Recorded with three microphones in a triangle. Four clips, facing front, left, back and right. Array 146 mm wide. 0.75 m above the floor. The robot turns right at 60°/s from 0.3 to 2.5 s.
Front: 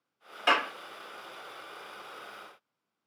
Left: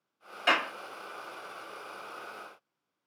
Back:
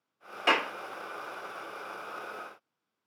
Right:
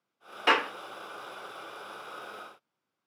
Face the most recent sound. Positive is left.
turn(degrees=10)